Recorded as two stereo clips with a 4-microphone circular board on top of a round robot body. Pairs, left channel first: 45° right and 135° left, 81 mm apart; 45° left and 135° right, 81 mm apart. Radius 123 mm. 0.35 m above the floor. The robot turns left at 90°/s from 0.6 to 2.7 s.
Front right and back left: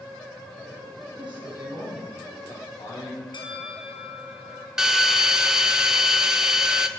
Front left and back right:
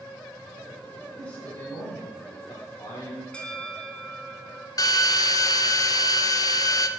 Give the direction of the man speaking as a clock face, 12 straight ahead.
7 o'clock.